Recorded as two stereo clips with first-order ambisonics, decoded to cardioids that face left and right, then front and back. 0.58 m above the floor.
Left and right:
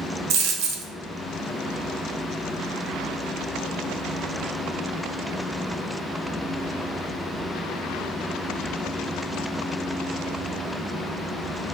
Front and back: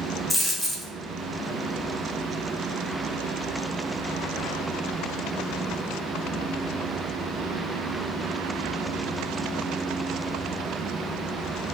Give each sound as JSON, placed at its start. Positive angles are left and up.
{"t": 0.3, "sound": "a dropped coin", "azimuth_deg": -85, "distance_m": 0.6}